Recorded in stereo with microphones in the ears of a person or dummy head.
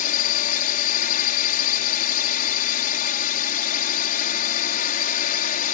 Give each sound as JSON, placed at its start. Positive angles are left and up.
{"t": 0.0, "sound": "a drone", "side_deg": 50}